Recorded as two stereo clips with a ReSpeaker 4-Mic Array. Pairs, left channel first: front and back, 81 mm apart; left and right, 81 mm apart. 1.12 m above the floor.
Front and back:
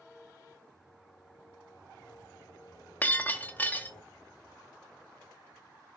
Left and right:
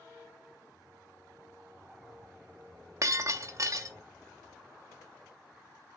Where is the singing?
30° right, 3.5 m.